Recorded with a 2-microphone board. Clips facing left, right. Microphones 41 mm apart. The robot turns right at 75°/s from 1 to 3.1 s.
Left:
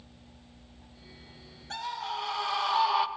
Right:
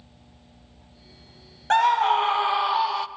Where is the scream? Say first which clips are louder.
Right 16 dB; 90° right, 0.7 m; by 3.1 s 10° left, 0.7 m.